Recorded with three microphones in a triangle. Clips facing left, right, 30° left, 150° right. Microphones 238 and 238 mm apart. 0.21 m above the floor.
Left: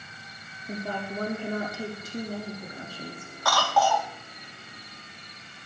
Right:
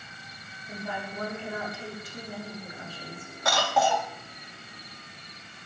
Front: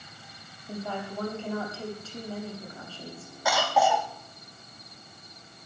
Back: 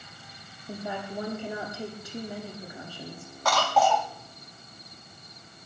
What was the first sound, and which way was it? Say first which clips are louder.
A woman speaking: left 4 dB, even; 135° left.